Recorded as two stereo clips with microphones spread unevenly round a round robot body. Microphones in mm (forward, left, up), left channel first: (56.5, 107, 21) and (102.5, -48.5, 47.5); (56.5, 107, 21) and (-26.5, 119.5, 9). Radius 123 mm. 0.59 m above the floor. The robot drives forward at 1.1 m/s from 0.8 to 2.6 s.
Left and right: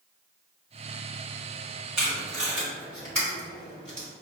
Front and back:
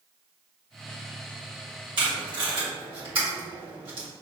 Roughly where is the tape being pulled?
Behind.